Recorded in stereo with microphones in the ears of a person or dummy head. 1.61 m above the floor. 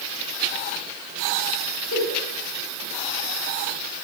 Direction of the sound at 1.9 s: 70° left (ahead or behind).